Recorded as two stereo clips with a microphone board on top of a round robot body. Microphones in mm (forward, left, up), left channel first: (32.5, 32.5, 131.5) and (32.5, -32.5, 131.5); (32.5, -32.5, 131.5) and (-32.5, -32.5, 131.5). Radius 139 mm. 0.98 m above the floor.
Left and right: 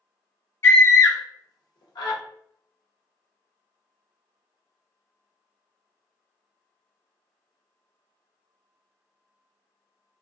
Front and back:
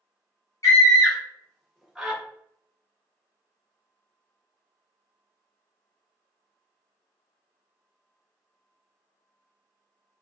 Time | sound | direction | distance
0.6 | a scream | 35° left | 1.2 m